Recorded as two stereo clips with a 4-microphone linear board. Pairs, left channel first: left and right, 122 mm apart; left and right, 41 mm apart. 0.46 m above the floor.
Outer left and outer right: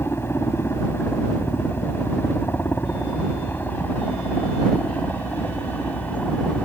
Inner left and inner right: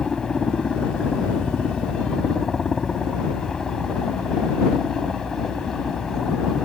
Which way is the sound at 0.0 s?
20° left (ahead or behind).